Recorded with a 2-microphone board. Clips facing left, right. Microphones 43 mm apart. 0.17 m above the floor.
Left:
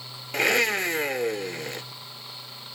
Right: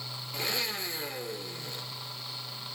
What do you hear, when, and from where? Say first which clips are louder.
0.3 s a blender: left 12 dB; 70° left (ahead or behind), 0.8 m